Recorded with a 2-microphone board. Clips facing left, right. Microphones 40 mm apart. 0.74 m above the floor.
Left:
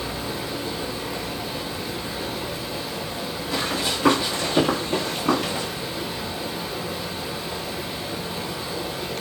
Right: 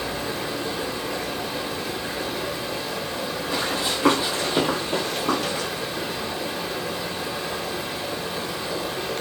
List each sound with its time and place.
0.0 s running water: 75° right (ahead or behind), 0.7 m
3.5 s running footsteps: 20° right (ahead or behind), 1.6 m; by 5.7 s 20° left (ahead or behind), 0.8 m